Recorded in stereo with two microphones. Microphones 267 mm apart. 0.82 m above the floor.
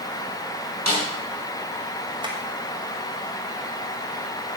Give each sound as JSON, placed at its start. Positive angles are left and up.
{"t": 0.9, "sound": "a snare drum", "side_deg": -80, "distance_m": 4.5}
{"t": 2.2, "sound": "tapping", "side_deg": -15, "distance_m": 3.0}